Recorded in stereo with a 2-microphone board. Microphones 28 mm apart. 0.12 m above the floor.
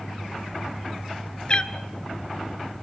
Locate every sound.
1.5 s a cat meowing: 35° left (ahead or behind), 1.0 m